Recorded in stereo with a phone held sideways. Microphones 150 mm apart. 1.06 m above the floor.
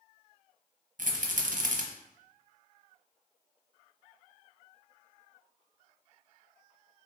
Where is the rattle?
60° right (ahead or behind), 0.7 m.